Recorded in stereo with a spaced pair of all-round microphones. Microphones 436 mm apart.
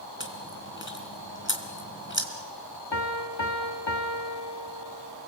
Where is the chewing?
25° left (ahead or behind), 2.5 m.